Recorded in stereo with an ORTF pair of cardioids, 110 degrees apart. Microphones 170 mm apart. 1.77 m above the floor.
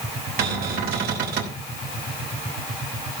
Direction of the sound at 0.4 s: 70° right.